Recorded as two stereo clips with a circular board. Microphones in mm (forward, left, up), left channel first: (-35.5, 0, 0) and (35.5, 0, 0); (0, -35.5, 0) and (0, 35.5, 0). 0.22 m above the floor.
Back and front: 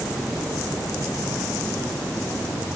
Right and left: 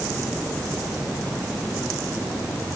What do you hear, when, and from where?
Only background noise.